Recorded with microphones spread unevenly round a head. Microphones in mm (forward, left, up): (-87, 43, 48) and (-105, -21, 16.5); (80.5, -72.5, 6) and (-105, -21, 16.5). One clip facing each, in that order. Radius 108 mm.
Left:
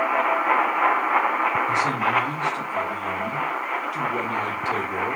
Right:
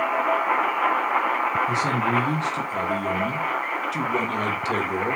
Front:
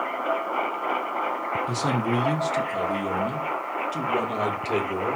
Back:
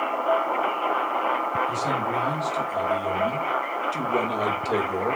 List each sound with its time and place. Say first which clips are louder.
1.7 s a man speaking: left 1 dB, front 2 dB; 45° right, 1.3 m; by 5.2 s 115° right, 2.5 m